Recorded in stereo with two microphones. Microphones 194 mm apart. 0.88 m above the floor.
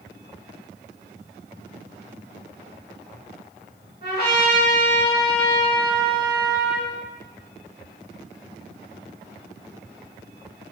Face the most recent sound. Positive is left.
turn(degrees=55)  # may be behind; listen again after turning